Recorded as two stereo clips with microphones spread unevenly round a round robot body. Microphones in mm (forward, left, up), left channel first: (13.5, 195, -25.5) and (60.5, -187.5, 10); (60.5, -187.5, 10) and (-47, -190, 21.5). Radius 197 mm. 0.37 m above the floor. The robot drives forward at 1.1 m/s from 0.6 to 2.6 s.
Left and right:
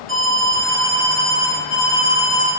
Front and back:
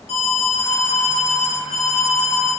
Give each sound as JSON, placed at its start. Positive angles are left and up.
{"t": 0.1, "sound": "an alarm", "azimuth_deg": 30, "distance_m": 6.5}